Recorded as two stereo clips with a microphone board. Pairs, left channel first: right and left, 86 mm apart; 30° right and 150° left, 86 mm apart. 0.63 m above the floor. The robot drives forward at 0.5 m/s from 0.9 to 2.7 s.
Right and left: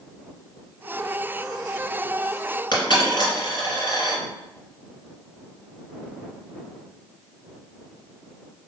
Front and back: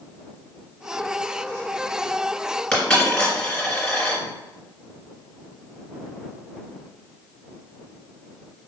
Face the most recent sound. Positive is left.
turn(degrees=-115)